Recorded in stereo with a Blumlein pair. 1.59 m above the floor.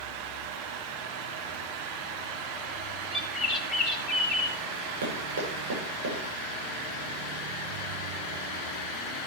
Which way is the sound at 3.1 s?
15° left.